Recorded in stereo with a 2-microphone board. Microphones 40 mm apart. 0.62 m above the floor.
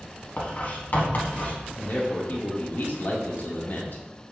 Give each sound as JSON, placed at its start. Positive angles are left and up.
{"t": 0.4, "sound": "writing", "side_deg": 50, "distance_m": 1.6}
{"t": 1.7, "sound": "a man speaking", "side_deg": 55, "distance_m": 1.4}